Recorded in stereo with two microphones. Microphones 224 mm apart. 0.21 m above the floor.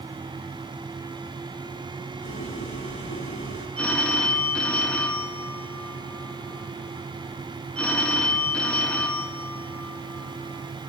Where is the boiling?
60° left (ahead or behind), 6 m.